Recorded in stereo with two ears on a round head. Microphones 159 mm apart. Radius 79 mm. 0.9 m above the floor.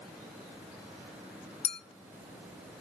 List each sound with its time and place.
1.6 s a clink: 35° left (ahead or behind), 0.7 m